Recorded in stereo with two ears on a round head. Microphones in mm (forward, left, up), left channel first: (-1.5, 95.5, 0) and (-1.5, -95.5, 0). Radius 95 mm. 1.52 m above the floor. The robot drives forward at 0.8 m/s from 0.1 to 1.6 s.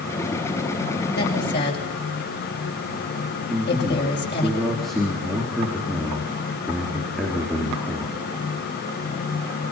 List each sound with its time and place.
1.1 s a woman speaking: 50° left (ahead or behind), 7.5 m
3.5 s a man speaking: centre (ahead or behind), 4.5 m